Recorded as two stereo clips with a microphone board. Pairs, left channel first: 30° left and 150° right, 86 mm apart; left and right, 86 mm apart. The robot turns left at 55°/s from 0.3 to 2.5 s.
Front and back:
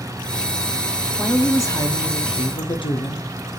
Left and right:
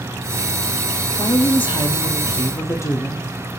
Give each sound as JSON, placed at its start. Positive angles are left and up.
{"t": 1.2, "sound": "a woman speaking", "azimuth_deg": 105, "distance_m": 0.6}